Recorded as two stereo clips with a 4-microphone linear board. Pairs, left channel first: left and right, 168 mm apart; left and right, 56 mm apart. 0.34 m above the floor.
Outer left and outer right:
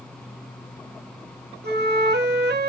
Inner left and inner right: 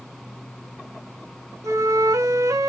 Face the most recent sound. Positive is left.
turn(degrees=-80)